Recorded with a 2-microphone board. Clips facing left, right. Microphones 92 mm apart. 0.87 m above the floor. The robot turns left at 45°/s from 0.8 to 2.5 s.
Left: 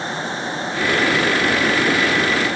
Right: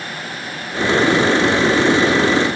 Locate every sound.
Only background noise.